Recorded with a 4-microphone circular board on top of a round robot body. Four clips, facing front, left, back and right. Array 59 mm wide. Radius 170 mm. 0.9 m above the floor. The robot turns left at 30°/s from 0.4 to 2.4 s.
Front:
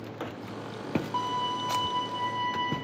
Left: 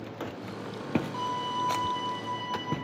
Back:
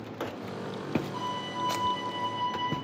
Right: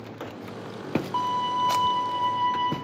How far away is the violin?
About 0.9 m.